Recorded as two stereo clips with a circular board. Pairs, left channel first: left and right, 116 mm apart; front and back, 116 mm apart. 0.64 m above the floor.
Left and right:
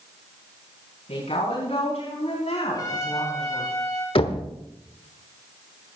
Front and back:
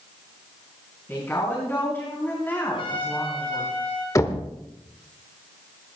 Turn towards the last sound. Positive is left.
turn(degrees=60)